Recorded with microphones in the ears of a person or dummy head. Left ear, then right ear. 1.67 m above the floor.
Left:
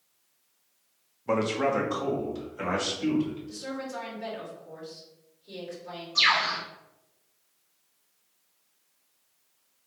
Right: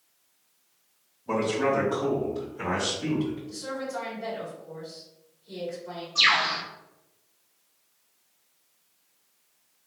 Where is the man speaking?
70° left (ahead or behind), 0.8 m; by 3.4 s 75° left (ahead or behind), 2.5 m.